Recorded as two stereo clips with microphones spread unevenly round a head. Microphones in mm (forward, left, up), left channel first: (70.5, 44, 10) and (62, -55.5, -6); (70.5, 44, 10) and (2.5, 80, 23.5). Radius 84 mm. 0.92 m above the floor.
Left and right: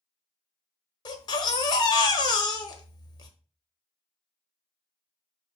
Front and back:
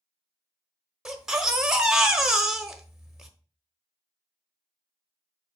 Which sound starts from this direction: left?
A baby crying, at 1.1 s.